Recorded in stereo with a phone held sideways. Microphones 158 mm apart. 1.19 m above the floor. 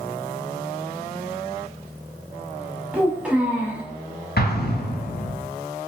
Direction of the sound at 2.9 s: 5° right (ahead or behind).